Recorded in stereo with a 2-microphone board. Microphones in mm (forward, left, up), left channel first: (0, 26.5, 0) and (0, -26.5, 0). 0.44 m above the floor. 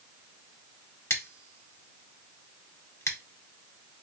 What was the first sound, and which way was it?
Scissors, 60° left (ahead or behind).